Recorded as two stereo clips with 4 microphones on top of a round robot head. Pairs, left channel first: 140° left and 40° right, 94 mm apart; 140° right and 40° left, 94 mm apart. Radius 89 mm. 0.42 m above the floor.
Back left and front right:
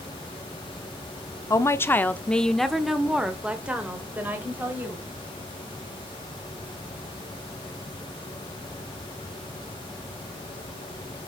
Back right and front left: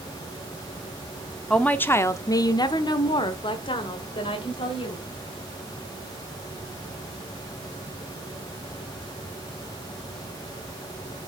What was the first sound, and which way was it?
A woman speaking, 150° left.